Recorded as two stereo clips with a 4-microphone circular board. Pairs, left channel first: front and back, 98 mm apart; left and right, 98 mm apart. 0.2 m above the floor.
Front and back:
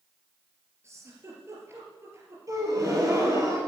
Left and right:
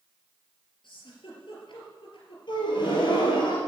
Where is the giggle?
120° left, 3.5 m.